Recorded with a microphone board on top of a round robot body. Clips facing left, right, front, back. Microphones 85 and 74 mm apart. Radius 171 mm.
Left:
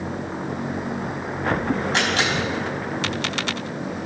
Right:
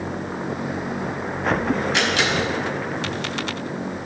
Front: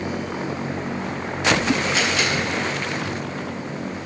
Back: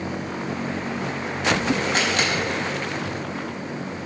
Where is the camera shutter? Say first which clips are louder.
Right 1 dB, front 1 dB; 145° left, 5 m.